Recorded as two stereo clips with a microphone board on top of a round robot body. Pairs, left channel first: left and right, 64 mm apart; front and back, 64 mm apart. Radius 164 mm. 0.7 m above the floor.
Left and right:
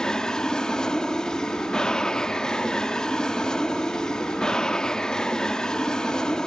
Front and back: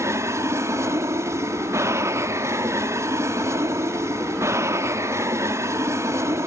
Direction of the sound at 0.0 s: 165° left.